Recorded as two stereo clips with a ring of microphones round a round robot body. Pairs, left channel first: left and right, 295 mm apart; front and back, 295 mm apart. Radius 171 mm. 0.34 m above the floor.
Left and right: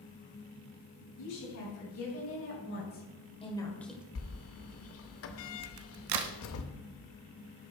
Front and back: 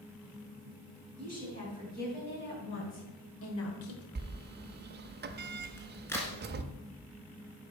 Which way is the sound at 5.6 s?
85° right.